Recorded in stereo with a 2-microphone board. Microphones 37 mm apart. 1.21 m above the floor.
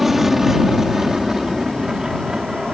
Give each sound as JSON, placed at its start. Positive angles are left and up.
{"t": 0.0, "sound": "an aircraft", "side_deg": -5}